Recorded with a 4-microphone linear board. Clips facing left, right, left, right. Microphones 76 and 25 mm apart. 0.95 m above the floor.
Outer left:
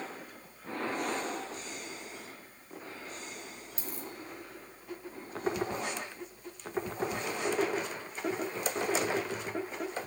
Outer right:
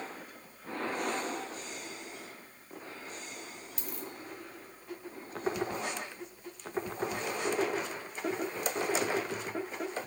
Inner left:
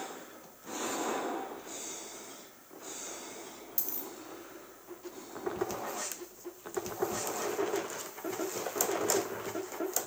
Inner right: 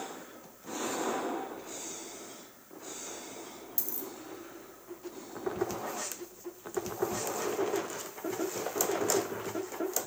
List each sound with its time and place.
3.8 s a dropped coin: 30° left (ahead or behind), 1.1 m